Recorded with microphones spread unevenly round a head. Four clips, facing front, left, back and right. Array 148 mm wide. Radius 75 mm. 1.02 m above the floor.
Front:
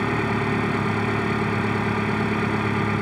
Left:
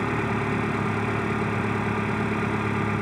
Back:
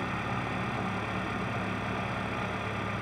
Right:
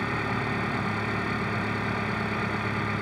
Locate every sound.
0.0 s an engine running: 15° left